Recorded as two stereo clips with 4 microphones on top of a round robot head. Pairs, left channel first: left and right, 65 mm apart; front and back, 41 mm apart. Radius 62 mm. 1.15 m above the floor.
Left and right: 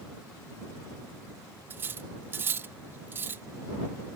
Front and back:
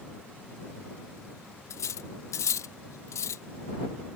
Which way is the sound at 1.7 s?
25° right.